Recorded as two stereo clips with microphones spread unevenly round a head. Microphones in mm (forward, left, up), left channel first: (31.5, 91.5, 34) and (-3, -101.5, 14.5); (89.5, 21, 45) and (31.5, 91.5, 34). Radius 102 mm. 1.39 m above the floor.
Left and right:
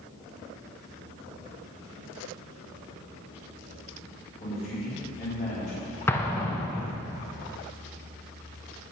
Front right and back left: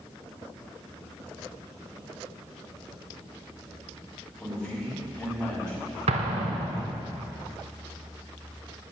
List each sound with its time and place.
4.4 s a man speaking: 25° left, 4.5 m
6.1 s an explosion: 155° left, 0.8 m